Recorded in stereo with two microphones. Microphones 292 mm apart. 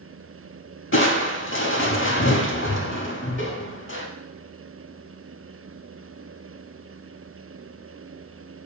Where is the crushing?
45° left (ahead or behind), 0.5 m.